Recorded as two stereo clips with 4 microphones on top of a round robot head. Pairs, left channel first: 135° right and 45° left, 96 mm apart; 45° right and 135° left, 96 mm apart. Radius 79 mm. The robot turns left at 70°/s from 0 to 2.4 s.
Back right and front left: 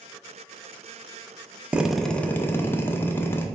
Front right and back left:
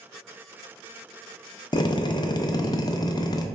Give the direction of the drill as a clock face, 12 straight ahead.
1 o'clock.